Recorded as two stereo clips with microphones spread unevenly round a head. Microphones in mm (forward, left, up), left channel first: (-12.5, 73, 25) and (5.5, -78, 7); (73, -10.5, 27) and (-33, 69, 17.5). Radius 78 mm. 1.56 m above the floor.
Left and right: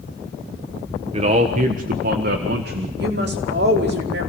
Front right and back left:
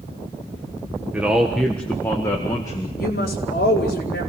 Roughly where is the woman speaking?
Ahead right.